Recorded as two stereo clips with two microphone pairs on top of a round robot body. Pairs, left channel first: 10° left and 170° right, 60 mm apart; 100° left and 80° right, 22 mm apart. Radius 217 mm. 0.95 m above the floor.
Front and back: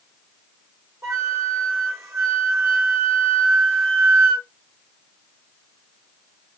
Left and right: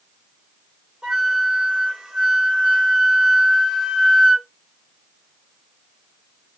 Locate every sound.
1.0 s a flute: 130° right, 1.2 m